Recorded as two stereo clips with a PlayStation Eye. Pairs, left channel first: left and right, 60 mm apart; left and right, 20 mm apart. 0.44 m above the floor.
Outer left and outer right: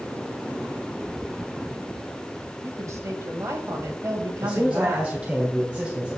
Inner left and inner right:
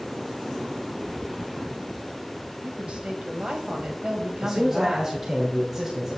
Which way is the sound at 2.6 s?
55° right (ahead or behind).